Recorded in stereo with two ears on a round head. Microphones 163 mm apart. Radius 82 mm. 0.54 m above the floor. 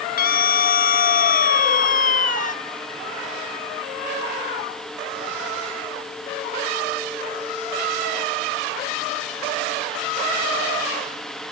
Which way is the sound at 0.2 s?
55° left (ahead or behind).